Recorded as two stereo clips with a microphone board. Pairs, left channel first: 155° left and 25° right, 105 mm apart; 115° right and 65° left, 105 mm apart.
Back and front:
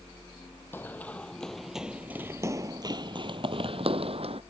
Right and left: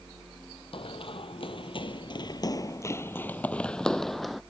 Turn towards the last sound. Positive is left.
turn(degrees=-20)